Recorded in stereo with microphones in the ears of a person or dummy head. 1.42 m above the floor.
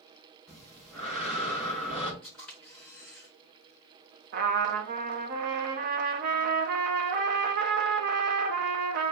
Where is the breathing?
Centre (ahead or behind), 1.5 m.